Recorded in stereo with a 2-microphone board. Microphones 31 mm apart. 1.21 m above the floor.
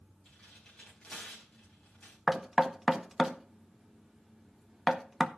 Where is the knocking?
5° right (ahead or behind), 0.7 m.